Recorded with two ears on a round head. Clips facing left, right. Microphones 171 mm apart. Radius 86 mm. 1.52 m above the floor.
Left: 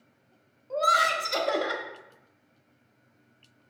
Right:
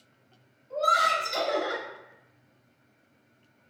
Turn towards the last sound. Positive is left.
turn(degrees=70)  # may be behind; listen again after turning